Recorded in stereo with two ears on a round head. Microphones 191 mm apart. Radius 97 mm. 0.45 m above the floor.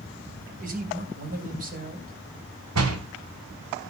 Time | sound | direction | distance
0.6 | a man speaking | 45° right (ahead or behind) | 3 m
2.8 | a door slam | 80° right | 2.5 m